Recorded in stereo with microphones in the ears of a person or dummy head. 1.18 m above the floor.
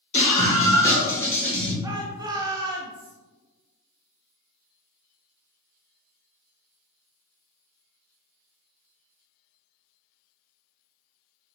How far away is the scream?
About 1.4 m.